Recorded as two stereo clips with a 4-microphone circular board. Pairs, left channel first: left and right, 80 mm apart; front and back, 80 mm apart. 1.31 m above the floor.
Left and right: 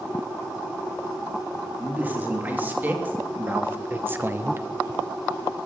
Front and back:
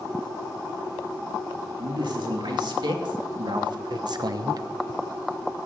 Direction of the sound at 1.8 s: 160° right.